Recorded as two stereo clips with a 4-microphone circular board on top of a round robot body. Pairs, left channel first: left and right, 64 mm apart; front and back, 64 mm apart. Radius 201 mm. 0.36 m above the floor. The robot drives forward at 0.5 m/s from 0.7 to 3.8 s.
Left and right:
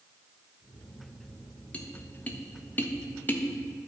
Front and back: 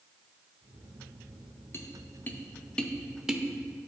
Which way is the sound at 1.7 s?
25° left.